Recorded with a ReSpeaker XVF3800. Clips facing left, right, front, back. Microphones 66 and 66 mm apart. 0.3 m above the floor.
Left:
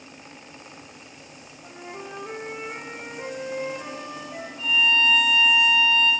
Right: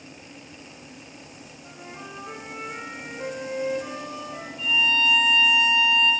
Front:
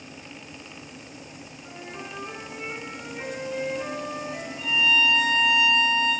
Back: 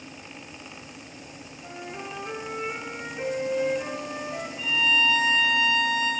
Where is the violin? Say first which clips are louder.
Left 1 dB, front 1 dB; 60° left, 1.7 m.